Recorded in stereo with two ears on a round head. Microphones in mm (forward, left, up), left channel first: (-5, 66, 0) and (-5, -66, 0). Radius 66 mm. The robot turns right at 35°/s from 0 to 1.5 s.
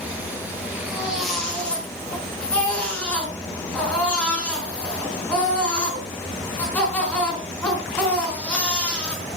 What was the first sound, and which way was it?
A baby crying, 15° right (ahead or behind).